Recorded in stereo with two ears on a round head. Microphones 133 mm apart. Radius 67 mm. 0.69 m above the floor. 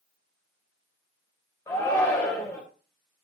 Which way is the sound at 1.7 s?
20° left (ahead or behind).